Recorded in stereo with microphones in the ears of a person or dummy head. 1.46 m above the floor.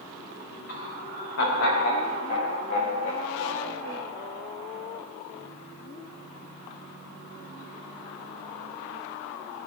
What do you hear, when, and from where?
0.7 s laughter: 60° left (ahead or behind), 3 m; by 4.1 s 70° left (ahead or behind), 5.5 m